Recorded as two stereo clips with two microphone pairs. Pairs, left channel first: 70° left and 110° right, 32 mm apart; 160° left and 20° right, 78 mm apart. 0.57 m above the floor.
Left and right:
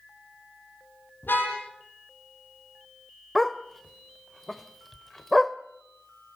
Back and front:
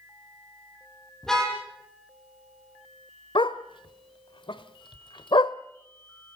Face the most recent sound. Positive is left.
turn(degrees=155)